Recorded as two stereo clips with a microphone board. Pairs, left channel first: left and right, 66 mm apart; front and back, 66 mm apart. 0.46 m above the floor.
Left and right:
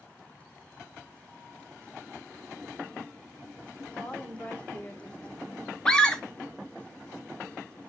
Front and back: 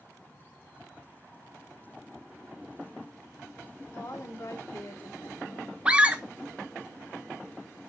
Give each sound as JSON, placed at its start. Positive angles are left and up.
{"t": 3.9, "sound": "a woman speaking", "azimuth_deg": 20, "distance_m": 2.0}
{"t": 5.8, "sound": "a scream", "azimuth_deg": 145, "distance_m": 0.7}